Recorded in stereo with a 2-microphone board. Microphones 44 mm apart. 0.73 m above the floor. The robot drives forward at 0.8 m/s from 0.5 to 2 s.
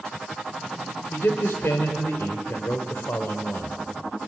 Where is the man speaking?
70° left (ahead or behind), 3 m; by 3.8 s 75° left (ahead or behind), 3 m.